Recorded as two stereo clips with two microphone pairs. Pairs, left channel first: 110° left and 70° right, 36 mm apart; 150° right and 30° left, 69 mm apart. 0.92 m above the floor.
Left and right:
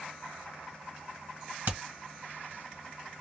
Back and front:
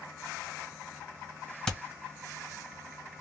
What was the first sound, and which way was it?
Hammering, 70° right.